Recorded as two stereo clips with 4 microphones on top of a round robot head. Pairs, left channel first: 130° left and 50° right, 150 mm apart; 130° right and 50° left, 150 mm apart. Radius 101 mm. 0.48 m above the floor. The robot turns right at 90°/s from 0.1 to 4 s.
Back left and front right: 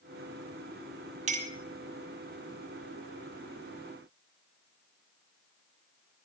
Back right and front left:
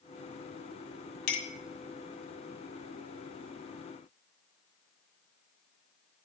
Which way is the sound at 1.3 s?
95° right.